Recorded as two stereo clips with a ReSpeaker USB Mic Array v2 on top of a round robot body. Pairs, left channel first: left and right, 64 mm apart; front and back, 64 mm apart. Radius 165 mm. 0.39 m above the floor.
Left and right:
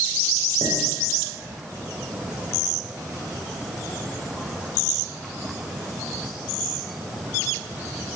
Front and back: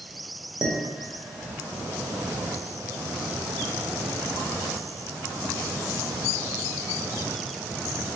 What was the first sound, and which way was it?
Dishes clattering, 105° right.